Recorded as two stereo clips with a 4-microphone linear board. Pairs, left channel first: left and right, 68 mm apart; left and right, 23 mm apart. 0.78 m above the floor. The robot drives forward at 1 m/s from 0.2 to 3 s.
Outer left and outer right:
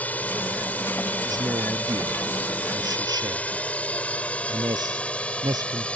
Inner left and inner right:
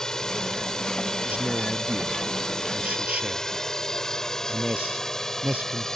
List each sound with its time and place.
0.0 s a drone: 25° left (ahead or behind); by 6.0 s 15° left (ahead or behind)
1.2 s a man speaking: 85° right